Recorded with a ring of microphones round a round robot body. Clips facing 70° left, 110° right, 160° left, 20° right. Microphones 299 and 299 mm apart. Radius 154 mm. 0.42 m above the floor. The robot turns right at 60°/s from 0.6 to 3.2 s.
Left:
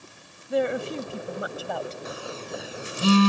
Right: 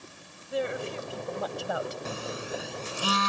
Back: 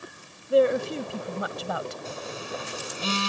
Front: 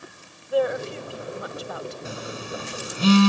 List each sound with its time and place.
0.5 s a woman speaking: 95° left; by 1.9 s 175° left
2.0 s a phone buzzing: 55° right; by 3.3 s 15° left